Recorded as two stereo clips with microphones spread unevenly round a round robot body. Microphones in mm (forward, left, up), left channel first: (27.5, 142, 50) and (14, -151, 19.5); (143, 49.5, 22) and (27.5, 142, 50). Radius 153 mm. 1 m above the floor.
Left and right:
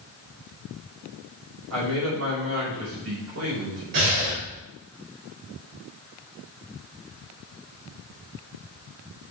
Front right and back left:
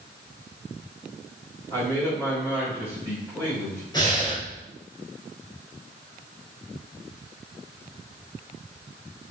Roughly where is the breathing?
Behind right.